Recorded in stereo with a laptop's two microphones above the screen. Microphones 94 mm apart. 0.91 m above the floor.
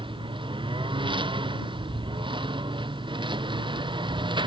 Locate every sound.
0.0 s a lawn mower: 65° right (ahead or behind); by 4.5 s 60° right (ahead or behind)